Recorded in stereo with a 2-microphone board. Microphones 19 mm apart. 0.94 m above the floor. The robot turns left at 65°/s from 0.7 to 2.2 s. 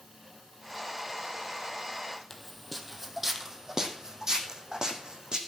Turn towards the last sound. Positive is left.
turn(degrees=-40)  # may be behind; listen again after turning